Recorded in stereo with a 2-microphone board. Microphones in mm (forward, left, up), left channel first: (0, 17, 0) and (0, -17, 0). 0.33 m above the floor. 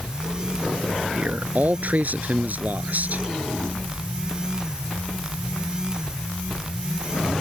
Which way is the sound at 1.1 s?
60° right (ahead or behind).